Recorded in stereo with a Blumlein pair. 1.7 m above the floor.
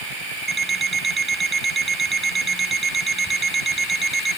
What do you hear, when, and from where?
0.5 s an alarm clock: 15° right